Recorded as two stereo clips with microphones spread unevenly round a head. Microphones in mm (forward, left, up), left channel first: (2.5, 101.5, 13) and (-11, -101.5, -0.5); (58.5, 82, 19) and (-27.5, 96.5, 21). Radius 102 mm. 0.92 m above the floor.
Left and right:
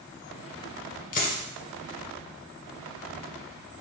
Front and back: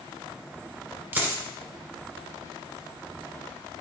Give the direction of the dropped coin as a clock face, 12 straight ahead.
8 o'clock.